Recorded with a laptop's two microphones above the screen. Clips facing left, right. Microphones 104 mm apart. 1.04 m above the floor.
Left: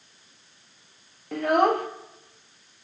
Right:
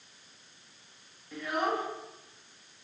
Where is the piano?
I don't hear a piano.